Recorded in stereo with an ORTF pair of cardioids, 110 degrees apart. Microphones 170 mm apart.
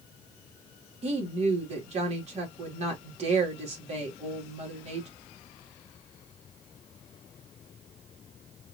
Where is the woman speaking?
40° right, 3 m.